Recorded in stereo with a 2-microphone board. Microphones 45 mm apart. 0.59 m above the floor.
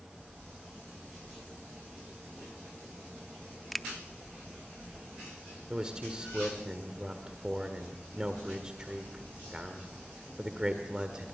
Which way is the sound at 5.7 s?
20° right (ahead or behind).